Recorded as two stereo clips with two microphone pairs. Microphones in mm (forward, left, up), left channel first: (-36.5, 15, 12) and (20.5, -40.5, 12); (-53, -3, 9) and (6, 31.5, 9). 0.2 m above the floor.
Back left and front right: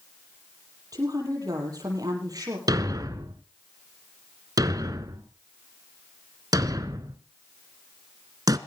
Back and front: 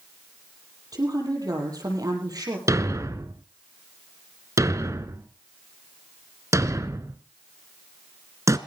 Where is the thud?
10° right, 1.1 m.